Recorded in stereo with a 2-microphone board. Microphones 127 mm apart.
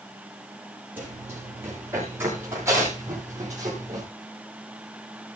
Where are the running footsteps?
15° right (ahead or behind), 8.5 m; by 4.0 s 25° right (ahead or behind), 8.5 m.